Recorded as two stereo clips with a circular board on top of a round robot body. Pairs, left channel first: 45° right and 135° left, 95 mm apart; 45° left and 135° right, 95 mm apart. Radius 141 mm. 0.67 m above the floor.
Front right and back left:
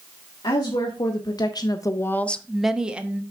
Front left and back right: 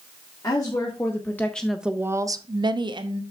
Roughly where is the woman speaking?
Ahead.